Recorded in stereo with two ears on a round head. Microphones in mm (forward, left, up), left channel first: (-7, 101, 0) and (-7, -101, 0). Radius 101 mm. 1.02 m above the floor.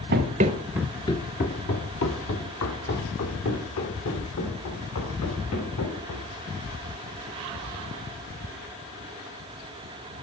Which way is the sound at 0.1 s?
45° right (ahead or behind).